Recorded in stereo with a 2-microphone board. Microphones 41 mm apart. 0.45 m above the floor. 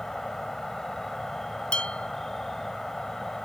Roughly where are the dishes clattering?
Left.